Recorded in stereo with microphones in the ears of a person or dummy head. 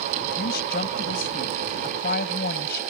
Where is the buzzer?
I don't hear a buzzer.